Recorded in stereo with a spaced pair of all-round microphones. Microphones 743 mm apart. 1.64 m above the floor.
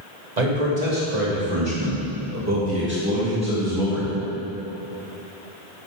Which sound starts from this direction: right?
A man speaking, at 0.4 s.